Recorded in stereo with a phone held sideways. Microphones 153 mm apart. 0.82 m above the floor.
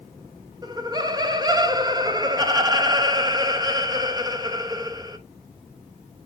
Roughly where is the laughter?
Right.